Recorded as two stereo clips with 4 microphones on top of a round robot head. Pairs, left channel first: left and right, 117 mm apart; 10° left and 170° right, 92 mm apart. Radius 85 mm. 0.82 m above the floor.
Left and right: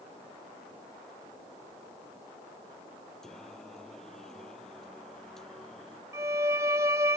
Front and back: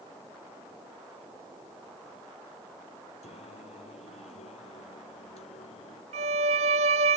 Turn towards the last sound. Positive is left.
turn(degrees=-160)